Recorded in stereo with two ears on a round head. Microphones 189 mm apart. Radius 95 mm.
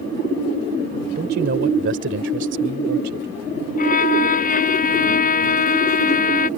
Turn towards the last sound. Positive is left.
turn(degrees=40)  # may be behind; listen again after turning